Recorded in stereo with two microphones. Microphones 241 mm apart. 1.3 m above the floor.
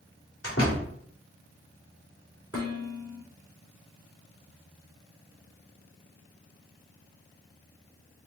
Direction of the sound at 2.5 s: 60° left (ahead or behind).